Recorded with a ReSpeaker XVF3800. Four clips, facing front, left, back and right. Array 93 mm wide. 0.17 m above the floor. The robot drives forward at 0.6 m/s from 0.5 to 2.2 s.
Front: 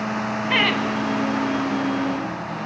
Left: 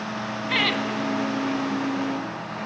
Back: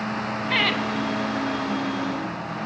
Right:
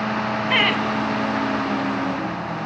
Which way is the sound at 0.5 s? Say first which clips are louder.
Right 3 dB, front 3 dB; 55° right.